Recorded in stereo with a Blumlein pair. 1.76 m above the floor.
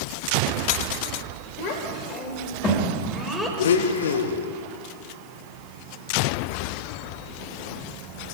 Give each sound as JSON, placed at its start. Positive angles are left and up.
{"t": 1.6, "sound": "a child speaking", "azimuth_deg": 40, "distance_m": 5.0}
{"t": 3.6, "sound": "a blender", "azimuth_deg": 65, "distance_m": 1.4}